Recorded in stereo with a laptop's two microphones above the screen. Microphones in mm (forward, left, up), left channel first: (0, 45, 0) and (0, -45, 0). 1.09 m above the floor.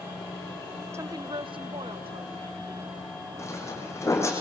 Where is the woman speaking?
30° right (ahead or behind), 0.6 m; by 3.0 s 75° right (ahead or behind), 3 m.